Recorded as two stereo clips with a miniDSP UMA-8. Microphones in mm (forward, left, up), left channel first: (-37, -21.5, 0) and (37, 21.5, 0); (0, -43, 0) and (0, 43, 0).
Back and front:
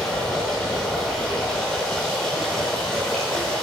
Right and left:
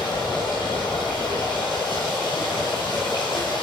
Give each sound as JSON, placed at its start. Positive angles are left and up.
{"t": 0.0, "sound": "running water", "azimuth_deg": -65, "distance_m": 4.0}